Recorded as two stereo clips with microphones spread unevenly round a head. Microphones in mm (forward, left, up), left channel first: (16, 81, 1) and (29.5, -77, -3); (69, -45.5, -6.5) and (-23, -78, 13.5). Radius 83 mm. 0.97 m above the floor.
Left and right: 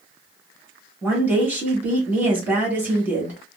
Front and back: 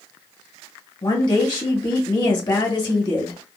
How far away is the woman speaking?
About 1.7 m.